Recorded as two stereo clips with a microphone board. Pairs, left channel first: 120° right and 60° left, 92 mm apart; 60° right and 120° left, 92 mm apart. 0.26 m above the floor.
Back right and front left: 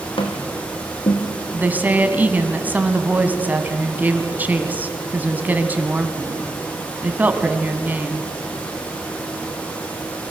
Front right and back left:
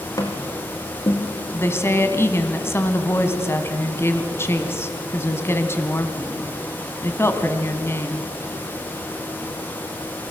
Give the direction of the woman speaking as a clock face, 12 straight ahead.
12 o'clock.